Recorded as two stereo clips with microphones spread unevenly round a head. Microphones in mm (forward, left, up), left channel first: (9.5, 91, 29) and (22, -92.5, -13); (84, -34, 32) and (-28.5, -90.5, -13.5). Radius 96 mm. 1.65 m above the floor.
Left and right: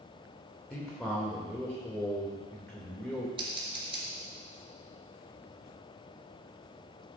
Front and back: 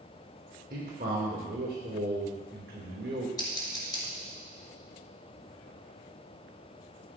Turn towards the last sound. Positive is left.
turn(degrees=-20)